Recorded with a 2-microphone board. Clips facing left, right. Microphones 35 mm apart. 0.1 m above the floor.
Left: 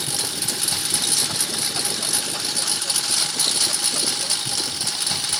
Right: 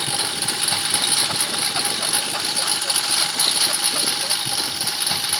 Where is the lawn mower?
30° right (ahead or behind); by 5.4 s 15° right (ahead or behind).